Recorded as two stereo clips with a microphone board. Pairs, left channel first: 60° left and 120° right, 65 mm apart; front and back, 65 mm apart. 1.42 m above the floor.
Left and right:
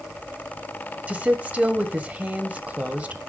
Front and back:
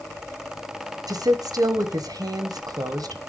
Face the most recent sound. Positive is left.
turn(degrees=170)